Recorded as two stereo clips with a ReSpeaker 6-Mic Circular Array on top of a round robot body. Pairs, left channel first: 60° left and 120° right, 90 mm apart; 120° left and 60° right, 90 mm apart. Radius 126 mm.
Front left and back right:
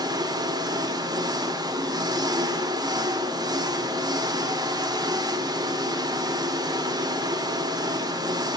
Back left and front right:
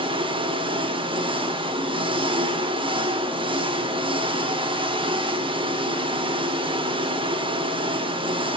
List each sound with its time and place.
0.0 s an engine running: 75° right, 2 m